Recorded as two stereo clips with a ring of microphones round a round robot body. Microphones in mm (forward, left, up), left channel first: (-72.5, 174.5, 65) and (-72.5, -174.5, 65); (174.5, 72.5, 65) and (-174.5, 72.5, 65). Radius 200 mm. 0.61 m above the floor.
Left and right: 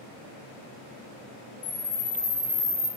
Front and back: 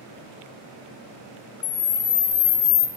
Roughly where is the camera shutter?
Ahead.